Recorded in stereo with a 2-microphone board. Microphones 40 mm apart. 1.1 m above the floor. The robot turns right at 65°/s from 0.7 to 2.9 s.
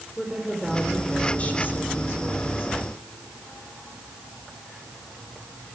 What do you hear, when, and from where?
0.2 s a woman speaking: 10° right, 4 m; by 2.7 s 120° left, 4 m